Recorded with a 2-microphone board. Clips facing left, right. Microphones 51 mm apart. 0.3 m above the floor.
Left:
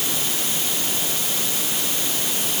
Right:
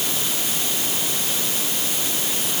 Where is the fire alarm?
No fire alarm in this recording.